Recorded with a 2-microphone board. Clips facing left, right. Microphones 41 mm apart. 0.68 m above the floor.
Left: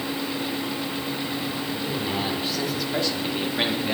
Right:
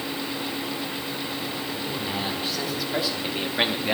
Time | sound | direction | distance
1.7 | a man speaking | 5° left (ahead or behind) | 3 m